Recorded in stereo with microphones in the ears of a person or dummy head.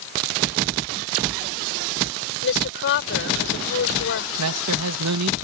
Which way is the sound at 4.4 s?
85° right.